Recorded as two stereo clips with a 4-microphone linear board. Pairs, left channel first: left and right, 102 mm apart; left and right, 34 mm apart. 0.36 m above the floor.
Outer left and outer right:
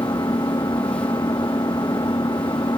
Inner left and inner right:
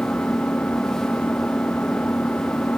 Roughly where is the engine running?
Left.